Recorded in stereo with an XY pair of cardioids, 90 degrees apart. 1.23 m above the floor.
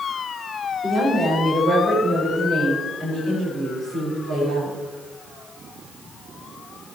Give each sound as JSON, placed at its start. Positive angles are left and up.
{"t": 0.8, "sound": "a woman speaking", "azimuth_deg": -45, "distance_m": 5.5}